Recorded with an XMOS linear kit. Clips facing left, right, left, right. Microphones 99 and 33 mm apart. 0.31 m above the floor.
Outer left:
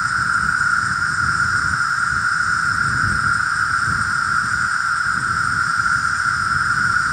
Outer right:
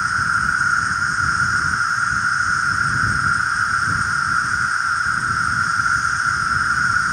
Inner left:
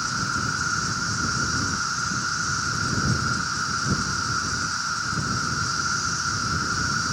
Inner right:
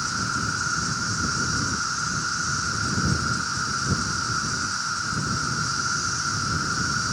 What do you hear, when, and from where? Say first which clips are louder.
0.0 s an insect: even, inner left 1 dB; 5° left (ahead or behind)